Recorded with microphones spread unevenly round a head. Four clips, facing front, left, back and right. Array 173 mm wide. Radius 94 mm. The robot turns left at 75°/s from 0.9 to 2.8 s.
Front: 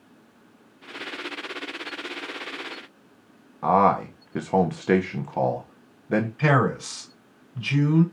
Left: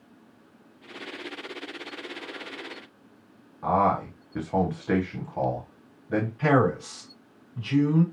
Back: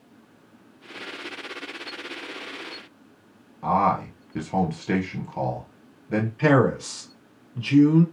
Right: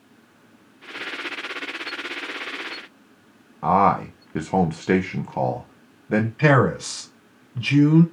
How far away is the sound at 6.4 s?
About 3 m.